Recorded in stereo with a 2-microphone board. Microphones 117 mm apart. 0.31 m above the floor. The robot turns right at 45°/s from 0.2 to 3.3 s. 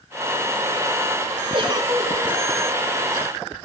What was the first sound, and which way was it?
A giggle, 45° right.